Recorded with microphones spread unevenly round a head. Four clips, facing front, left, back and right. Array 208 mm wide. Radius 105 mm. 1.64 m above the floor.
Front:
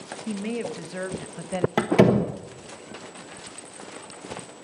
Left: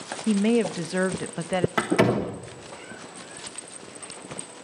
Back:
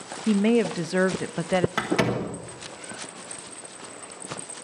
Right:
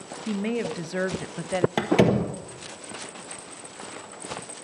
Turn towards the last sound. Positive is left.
turn(degrees=-30)